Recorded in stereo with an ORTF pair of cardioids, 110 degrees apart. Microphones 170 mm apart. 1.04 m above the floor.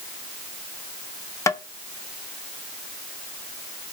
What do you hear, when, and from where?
1.5 s tapping: 20° left, 0.6 m